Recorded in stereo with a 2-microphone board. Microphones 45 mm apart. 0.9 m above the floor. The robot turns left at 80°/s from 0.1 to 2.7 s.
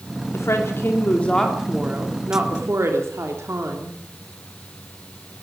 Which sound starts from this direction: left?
A woman speaking, at 0.3 s.